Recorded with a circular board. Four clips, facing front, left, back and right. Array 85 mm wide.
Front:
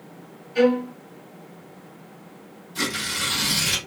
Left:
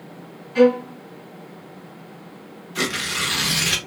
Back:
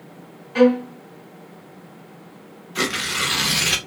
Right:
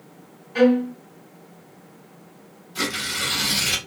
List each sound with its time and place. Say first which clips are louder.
0.6 s a violin: left 1 dB, back 3 dB; 170° right, 1.2 m
2.8 s tearing paper: left 2 dB, back 4 dB; 155° left, 0.7 m